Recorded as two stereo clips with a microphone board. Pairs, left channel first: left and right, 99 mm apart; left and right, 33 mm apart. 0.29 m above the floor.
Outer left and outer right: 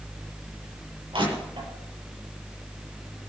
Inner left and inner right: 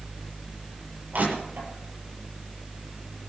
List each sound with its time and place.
1.1 s crushing: 60° right (ahead or behind), 8 m